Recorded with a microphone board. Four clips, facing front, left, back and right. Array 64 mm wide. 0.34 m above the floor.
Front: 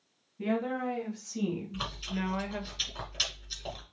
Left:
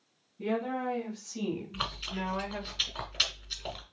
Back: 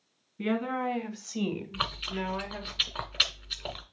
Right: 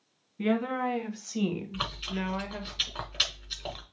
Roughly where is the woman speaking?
Behind right.